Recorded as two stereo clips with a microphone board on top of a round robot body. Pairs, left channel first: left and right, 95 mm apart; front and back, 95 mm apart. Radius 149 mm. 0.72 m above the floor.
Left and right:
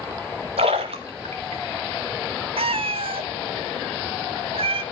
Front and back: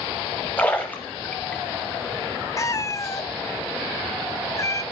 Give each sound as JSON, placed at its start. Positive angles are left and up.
{"t": 0.6, "sound": "a splash", "azimuth_deg": -80, "distance_m": 0.6}
{"t": 2.6, "sound": "a cat meowing", "azimuth_deg": -60, "distance_m": 0.7}